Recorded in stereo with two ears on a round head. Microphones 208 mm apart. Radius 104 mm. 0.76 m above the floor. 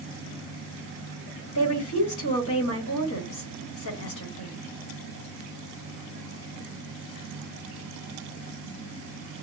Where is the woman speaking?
65° left (ahead or behind), 1.6 m.